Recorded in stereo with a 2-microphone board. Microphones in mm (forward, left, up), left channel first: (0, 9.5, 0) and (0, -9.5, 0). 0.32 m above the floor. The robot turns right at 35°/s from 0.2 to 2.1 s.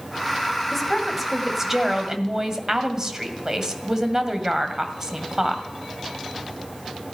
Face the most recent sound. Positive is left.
turn(degrees=-140)